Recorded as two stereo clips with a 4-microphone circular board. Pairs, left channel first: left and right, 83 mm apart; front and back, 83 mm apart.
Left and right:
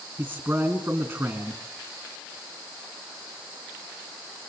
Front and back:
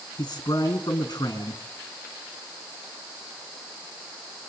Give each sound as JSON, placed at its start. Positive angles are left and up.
{"t": 0.2, "sound": "a man speaking", "azimuth_deg": -35, "distance_m": 2.5}